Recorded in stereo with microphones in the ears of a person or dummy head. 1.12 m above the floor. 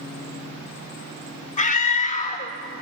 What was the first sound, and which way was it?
A scream, 45° left (ahead or behind).